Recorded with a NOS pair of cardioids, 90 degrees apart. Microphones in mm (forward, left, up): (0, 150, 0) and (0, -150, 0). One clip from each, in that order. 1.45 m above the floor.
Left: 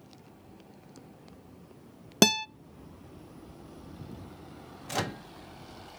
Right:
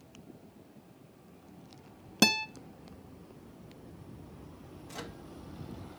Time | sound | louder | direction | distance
2.2 | a guitar | left 3 dB | 35° left | 0.6 m
4.9 | a microwave | left 12 dB | 60° left | 0.5 m